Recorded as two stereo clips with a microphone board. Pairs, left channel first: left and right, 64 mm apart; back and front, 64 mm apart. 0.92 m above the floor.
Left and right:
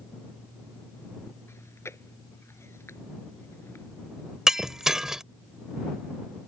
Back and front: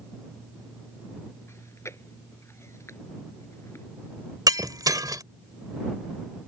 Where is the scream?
I don't hear a scream.